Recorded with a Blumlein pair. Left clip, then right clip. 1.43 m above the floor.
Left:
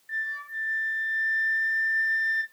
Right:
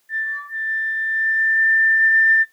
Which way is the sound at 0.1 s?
15° left.